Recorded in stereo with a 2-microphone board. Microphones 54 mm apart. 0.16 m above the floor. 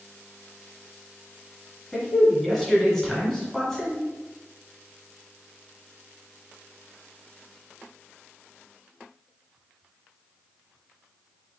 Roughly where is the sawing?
I don't hear sawing.